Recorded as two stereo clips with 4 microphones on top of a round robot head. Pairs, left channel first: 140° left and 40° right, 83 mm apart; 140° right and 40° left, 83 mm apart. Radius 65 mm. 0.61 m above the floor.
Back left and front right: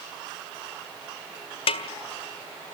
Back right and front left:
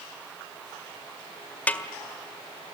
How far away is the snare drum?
About 1.7 m.